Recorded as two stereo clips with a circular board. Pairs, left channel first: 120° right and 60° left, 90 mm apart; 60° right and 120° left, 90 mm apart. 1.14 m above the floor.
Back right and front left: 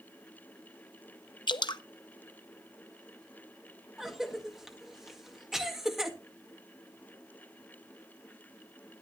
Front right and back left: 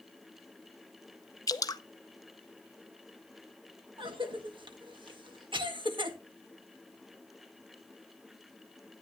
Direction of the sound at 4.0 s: 145° left.